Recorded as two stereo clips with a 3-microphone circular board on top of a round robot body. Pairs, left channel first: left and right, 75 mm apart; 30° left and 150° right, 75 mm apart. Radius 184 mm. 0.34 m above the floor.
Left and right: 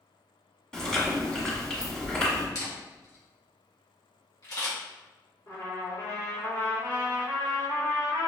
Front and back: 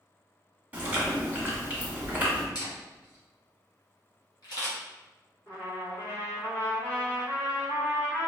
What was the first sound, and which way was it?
Chewing, 165° left.